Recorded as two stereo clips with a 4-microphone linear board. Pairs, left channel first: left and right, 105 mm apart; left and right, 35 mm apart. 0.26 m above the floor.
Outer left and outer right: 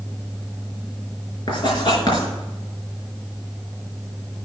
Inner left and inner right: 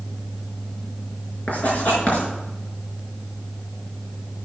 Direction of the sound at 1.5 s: 45° left (ahead or behind).